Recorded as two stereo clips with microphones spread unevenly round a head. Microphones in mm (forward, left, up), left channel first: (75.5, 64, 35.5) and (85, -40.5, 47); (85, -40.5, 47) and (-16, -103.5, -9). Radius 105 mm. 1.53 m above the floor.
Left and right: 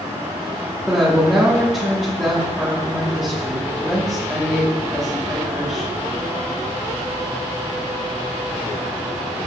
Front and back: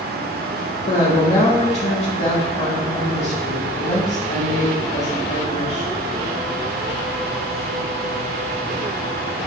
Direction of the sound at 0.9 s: 5° left.